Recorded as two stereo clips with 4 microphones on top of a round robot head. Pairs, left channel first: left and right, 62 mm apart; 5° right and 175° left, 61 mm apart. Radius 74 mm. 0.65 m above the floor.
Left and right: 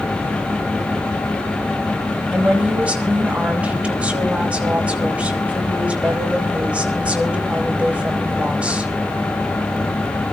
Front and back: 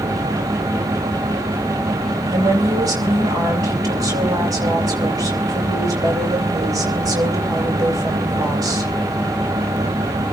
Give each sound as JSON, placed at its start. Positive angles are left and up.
{"t": 2.3, "sound": "a woman speaking", "azimuth_deg": -160, "distance_m": 5.0}